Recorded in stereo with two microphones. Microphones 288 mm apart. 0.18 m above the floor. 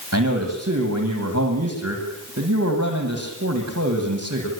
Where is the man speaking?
60° right (ahead or behind), 8.5 m.